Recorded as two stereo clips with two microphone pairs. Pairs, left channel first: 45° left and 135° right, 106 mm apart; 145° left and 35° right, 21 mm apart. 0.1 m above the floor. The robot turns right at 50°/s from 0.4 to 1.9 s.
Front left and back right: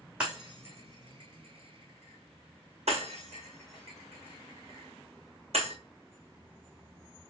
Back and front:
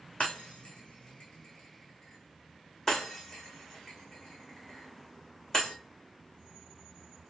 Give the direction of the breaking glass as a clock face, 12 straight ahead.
7 o'clock.